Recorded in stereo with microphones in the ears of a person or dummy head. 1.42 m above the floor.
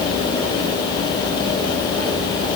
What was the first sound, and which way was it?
Only background noise.